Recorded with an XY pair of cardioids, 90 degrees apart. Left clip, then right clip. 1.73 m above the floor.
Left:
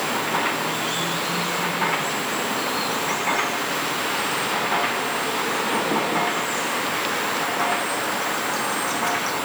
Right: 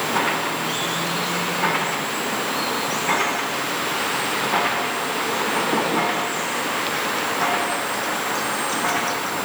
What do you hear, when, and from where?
Only background noise.